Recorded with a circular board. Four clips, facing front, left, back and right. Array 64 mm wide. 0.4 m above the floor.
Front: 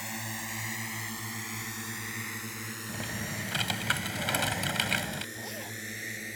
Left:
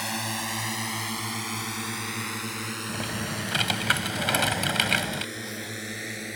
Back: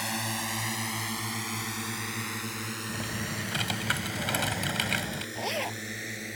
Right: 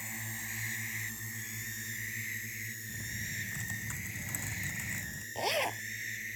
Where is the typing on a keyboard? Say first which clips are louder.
Left 10 dB, even; 90° left.